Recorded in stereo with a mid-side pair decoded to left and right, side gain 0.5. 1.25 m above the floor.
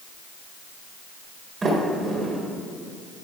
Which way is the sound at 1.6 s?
35° right.